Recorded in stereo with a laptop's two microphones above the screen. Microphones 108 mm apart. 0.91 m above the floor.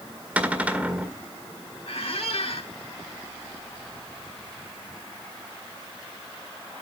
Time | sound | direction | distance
0.4 | a cupboard door | 15° right (ahead or behind) | 1.7 m
1.9 | a squeak | 70° left (ahead or behind) | 1.2 m